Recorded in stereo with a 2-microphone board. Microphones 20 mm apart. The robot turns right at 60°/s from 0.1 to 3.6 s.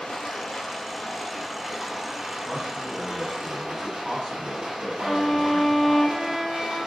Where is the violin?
20° right (ahead or behind), 0.8 m.